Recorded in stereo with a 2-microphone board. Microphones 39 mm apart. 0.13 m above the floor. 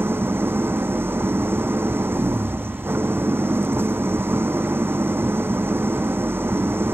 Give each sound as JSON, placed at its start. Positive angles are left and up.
{"t": 0.0, "sound": "an engine running", "side_deg": -70}